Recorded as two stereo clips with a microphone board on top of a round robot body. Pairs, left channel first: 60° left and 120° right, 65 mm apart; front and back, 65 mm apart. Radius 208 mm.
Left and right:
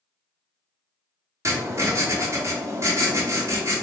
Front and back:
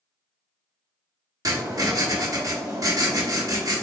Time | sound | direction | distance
1.4 | writing | 160° right | 1.5 m